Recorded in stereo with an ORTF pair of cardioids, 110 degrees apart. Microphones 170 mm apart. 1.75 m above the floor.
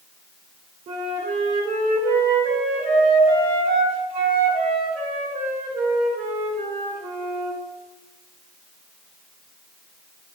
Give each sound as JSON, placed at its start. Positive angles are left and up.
{"t": 0.9, "sound": "a flute", "azimuth_deg": -60, "distance_m": 1.0}